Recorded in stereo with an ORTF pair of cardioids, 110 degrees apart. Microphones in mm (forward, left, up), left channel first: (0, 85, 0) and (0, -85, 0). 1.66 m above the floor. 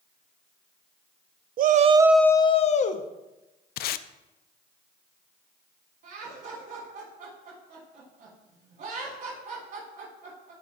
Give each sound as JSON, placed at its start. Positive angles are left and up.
{"t": 1.6, "sound": "a shout", "azimuth_deg": -55, "distance_m": 0.6}
{"t": 3.8, "sound": "tape being pulled", "azimuth_deg": 65, "distance_m": 0.6}
{"t": 6.0, "sound": "laughter", "azimuth_deg": -55, "distance_m": 6.0}